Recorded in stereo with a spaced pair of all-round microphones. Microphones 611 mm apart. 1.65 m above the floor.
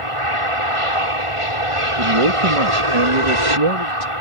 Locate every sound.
0.0 s an aircraft: 55° right (ahead or behind)
2.0 s a man speaking: 60° right (ahead or behind)